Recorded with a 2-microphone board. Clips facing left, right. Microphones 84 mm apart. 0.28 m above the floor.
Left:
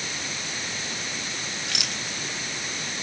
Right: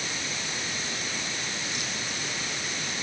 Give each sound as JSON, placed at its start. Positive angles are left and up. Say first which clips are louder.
{"t": 1.7, "sound": "a rattle", "louder": "left 1 dB", "side_deg": 85}